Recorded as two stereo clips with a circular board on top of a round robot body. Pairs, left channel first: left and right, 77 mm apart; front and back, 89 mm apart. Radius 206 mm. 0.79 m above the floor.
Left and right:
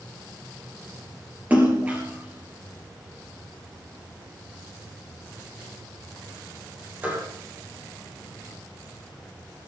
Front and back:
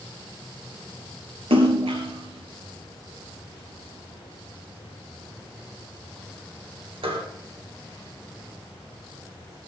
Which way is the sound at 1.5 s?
160° right.